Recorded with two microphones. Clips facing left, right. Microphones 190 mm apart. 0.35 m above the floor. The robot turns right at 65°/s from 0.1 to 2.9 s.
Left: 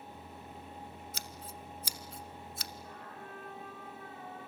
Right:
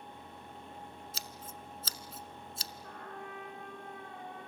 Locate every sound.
1.1 s scissors: 60° left (ahead or behind), 1.0 m; by 2.7 s 40° right (ahead or behind), 1.0 m
2.8 s a trumpet: 60° right (ahead or behind), 6.5 m; by 4.5 s 65° right (ahead or behind), 6.5 m